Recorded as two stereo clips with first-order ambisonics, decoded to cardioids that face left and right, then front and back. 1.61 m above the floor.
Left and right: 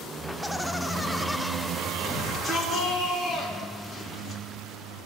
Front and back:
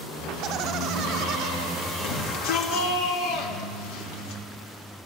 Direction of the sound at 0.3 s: Straight behind.